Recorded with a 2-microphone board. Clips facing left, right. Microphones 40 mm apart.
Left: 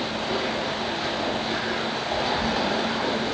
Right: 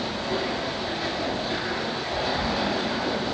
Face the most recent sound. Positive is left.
turn(degrees=60)  # may be behind; listen again after turning